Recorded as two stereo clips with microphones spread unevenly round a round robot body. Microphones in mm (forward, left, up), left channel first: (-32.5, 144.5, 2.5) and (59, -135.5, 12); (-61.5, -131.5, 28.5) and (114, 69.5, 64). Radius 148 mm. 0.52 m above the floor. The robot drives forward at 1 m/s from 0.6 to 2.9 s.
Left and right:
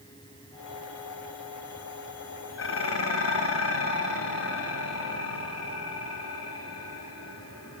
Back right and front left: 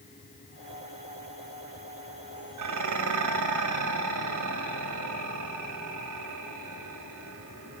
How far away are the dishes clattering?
About 2.5 m.